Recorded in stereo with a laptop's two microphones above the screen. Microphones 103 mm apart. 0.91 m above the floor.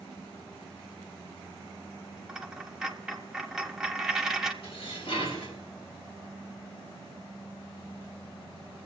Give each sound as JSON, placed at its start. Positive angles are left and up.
{"t": 2.3, "sound": "a dropped coin", "side_deg": -5, "distance_m": 1.1}
{"t": 4.6, "sound": "dishes clattering", "side_deg": 60, "distance_m": 4.0}